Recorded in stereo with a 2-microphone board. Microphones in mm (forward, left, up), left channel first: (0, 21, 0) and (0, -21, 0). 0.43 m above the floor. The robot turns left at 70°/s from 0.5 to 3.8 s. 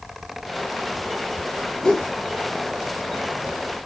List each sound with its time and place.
1.8 s a whoosh: 15° left (ahead or behind), 0.8 m; by 2.1 s 5° right (ahead or behind), 0.8 m